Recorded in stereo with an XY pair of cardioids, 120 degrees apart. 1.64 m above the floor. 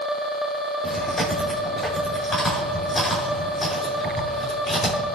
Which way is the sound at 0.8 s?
20° left.